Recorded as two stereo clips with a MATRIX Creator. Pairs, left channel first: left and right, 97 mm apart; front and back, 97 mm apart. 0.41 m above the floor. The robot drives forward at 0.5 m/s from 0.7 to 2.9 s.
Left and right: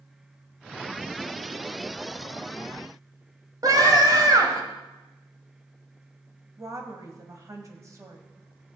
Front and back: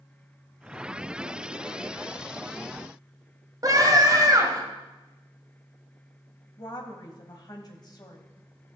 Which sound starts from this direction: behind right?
A scream, at 3.6 s.